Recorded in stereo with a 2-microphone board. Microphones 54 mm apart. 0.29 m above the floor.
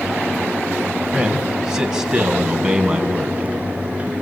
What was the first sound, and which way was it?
A man speaking, 15° right (ahead or behind).